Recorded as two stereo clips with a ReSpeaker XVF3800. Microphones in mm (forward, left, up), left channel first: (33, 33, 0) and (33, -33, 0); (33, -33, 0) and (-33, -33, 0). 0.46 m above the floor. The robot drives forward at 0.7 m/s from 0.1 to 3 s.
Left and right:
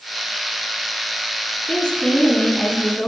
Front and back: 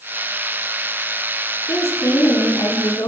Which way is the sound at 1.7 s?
15° left.